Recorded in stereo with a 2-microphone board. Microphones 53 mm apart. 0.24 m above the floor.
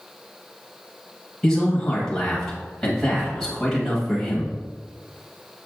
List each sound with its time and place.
1.4 s a man speaking: 10° left (ahead or behind), 0.9 m